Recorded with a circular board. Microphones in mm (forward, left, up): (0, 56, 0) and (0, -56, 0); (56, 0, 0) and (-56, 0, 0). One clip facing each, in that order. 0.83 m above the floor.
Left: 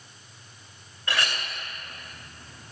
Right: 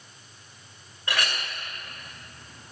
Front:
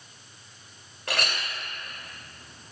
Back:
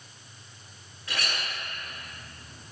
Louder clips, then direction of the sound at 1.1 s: Even, front 4 dB; 20° right.